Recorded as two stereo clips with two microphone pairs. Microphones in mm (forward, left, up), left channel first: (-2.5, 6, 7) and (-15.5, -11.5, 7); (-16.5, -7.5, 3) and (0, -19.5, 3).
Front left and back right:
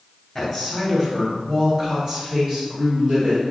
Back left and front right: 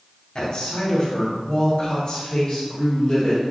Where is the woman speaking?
145° left, 1.8 m; by 3.4 s 170° right, 2.5 m.